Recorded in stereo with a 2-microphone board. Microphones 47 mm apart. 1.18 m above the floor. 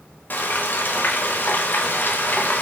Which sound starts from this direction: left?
Frying, at 0.3 s.